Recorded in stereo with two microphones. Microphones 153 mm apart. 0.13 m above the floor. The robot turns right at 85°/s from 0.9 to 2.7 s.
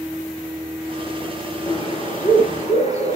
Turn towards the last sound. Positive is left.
turn(degrees=120)